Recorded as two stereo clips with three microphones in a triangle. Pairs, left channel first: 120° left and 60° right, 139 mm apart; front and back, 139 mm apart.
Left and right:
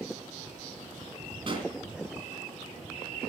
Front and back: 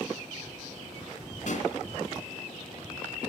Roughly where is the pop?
Ahead.